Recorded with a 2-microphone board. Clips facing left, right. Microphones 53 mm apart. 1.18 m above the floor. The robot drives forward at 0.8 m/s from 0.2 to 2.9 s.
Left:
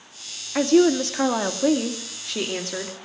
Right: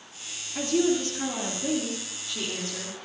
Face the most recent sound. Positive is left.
turn(degrees=60)  # may be behind; listen again after turning